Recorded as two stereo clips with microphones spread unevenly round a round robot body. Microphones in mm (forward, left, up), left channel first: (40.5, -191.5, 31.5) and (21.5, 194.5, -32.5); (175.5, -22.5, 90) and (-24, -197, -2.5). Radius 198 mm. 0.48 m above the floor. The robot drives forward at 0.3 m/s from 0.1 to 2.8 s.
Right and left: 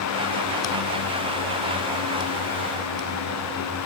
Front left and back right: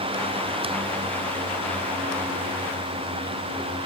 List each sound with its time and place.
Only background noise.